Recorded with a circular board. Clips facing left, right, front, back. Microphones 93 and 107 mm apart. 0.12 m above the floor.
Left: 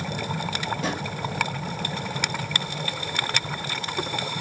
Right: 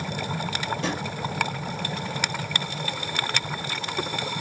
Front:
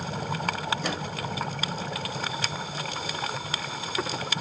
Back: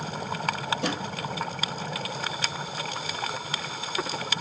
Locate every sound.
0.8 s a drawer: 175° left, 1.9 m